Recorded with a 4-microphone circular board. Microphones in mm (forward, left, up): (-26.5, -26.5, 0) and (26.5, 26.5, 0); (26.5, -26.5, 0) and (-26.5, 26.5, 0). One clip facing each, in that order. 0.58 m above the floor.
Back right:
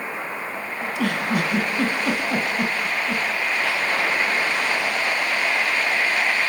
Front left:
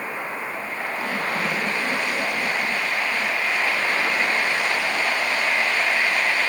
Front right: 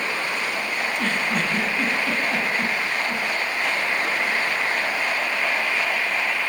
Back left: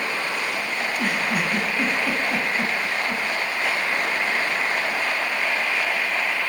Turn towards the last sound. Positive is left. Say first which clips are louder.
# back right 3 dB, even
turn(degrees=-140)